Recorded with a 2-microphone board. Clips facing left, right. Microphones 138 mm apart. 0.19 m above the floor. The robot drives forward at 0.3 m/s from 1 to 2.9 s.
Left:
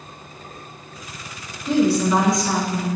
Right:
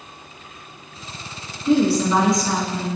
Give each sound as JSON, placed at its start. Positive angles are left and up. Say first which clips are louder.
{"t": 1.6, "sound": "a woman speaking", "louder": "right 1 dB", "side_deg": 0, "distance_m": 1.2}